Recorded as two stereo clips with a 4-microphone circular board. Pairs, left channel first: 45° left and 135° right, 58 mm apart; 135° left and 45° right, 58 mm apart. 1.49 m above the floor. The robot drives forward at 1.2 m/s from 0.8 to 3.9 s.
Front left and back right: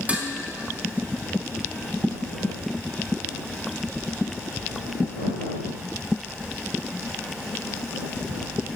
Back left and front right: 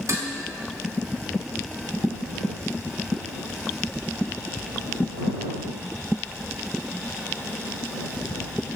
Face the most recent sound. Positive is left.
turn(degrees=-135)